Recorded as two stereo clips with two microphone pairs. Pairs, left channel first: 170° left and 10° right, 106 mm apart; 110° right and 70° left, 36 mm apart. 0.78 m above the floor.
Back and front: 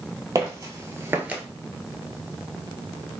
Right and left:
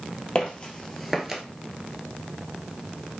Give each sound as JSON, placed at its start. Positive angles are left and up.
{"t": 0.3, "sound": "footsteps", "azimuth_deg": -55, "distance_m": 1.2}